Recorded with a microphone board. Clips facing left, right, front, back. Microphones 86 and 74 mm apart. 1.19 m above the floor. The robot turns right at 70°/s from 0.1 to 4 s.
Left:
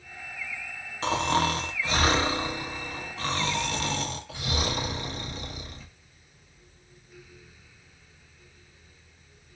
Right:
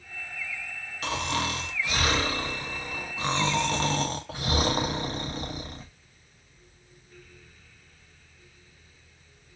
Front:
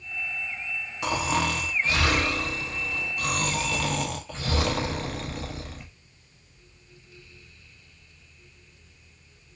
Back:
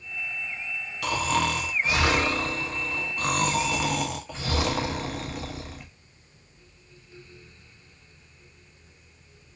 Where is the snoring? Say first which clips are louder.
Left 5 dB, back 1 dB; 55° left, 0.5 m; by 5.9 s 100° right, 0.5 m.